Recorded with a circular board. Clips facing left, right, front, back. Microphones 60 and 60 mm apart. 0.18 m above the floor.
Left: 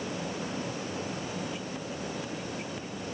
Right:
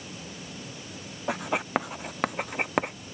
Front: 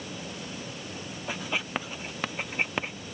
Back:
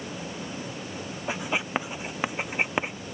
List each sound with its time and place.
1.3 s writing: 110° right